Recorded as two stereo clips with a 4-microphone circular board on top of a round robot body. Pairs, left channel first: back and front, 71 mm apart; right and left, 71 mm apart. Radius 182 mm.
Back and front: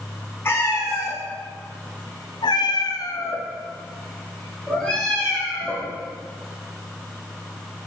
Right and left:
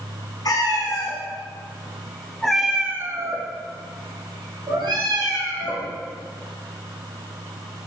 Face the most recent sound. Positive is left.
turn(degrees=95)